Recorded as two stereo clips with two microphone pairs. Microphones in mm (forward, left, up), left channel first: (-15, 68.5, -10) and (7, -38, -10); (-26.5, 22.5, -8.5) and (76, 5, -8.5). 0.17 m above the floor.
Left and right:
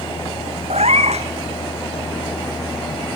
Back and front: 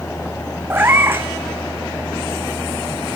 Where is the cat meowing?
75° right, 1.0 m.